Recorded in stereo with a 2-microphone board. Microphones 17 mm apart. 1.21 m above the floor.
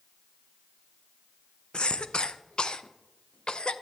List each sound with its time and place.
1.7 s a cough: 60° left (ahead or behind), 0.6 m